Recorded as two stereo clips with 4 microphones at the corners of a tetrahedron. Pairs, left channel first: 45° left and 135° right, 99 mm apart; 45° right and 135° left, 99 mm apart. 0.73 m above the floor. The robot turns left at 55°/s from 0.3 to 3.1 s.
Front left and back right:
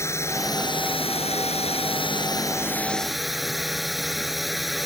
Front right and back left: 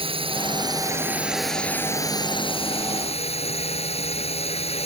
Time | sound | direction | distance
0.0 | a drone | 110° left | ?